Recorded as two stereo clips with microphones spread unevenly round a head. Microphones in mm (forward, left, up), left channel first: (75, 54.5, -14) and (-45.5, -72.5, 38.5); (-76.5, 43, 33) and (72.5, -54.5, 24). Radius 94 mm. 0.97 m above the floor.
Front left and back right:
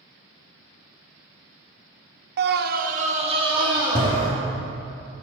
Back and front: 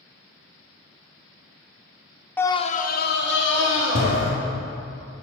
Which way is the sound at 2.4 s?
135° right.